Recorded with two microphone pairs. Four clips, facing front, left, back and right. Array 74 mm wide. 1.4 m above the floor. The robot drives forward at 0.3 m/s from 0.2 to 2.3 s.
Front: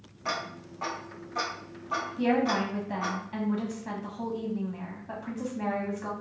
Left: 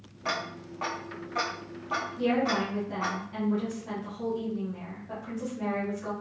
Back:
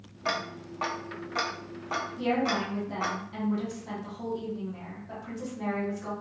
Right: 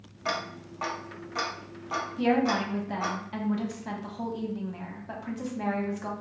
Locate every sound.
0.2 s ticking: 165° right, 0.6 m; by 3.2 s 175° right, 1.0 m
2.2 s a woman speaking: 60° right, 1.3 m; by 6.1 s 65° right, 1.2 m